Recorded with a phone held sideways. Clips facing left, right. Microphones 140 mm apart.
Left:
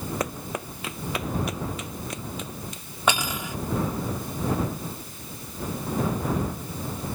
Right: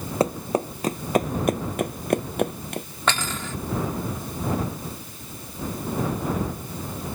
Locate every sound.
0.2 s running footsteps: 30° right (ahead or behind); by 2.9 s 70° right (ahead or behind)
3.1 s cutlery clinking: 10° left (ahead or behind)